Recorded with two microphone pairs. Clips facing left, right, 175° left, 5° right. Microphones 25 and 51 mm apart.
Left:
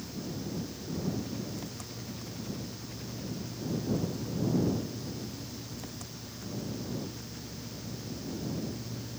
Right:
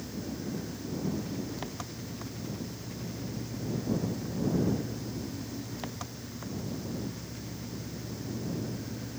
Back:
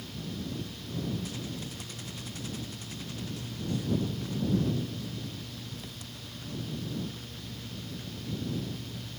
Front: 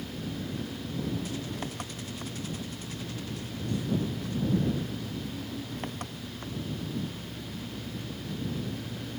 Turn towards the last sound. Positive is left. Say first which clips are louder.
# right 1 dB, front 3 dB
turn(degrees=-35)